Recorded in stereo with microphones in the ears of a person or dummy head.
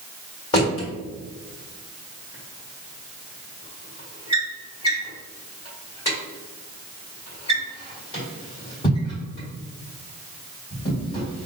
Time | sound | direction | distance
0.5 | a drawer | 30° left (ahead or behind) | 1.6 m